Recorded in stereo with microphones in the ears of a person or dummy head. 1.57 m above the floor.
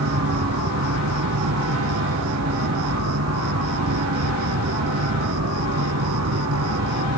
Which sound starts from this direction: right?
An insect, at 0.0 s.